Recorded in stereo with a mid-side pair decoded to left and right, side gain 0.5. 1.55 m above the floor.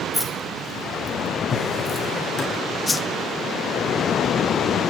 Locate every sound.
0.1 s keys jangling: straight ahead, 3.5 m; by 2.1 s 20° left, 3 m
1.5 s a drawer: 30° left, 6 m
2.9 s a whoosh: 20° left, 0.9 m